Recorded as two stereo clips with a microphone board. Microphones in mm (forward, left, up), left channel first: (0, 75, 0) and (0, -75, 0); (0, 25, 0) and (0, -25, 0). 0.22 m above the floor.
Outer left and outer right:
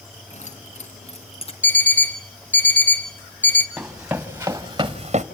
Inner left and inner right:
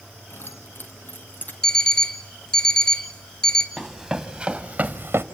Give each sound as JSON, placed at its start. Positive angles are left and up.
{"t": 0.3, "sound": "keys jangling", "side_deg": 55, "distance_m": 1.8}
{"t": 1.6, "sound": "an alarm clock", "side_deg": 10, "distance_m": 0.9}
{"t": 3.8, "sound": "running footsteps", "side_deg": -5, "distance_m": 2.5}